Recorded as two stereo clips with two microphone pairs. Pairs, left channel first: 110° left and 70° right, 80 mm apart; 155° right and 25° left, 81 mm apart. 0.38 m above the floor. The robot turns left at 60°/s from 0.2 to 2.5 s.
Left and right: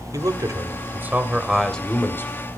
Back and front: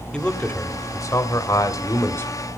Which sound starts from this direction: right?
A man speaking, at 0.1 s.